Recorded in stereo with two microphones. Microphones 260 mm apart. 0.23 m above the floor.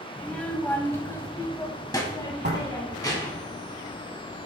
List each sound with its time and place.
0.2 s a child speaking: 5° left (ahead or behind), 1.0 m; by 3.4 s 15° left (ahead or behind), 1.7 m
2.4 s a door slam: 40° right (ahead or behind), 0.9 m